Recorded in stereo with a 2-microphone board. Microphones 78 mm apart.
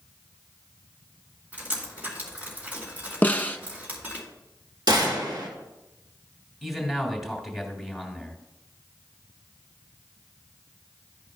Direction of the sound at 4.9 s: 65° right (ahead or behind).